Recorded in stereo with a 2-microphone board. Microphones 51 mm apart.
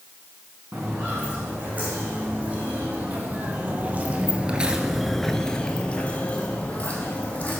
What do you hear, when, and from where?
0.7 s footsteps: 30° right (ahead or behind), 3.5 m; by 7.6 s 30° left (ahead or behind), 2 m